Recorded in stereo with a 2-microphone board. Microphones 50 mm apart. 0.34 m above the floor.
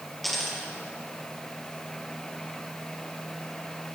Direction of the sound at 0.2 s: Centre (ahead or behind).